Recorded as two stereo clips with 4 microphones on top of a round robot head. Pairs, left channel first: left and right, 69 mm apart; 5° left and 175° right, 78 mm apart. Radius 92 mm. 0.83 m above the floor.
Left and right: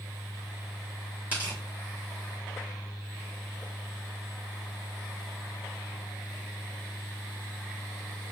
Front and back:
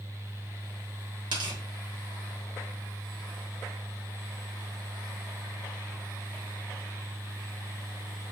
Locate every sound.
1.3 s tearing paper: 160° right, 2.0 m